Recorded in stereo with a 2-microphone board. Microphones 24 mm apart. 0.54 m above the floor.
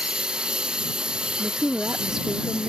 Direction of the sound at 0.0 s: 35° right (ahead or behind).